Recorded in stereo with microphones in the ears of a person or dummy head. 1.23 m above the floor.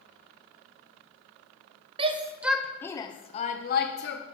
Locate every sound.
2.0 s a shout: 30° right (ahead or behind), 0.8 m; by 4.2 s 50° left (ahead or behind), 1.1 m